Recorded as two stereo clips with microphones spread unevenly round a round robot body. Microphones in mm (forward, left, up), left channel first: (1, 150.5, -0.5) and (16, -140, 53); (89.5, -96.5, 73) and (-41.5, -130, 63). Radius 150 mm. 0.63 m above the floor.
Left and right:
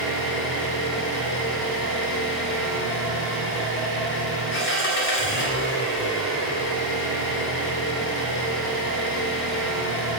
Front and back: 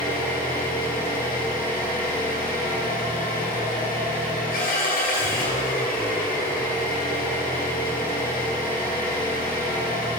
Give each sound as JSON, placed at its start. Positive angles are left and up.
{"t": 0.0, "sound": "an engine running", "azimuth_deg": 45, "distance_m": 2.0}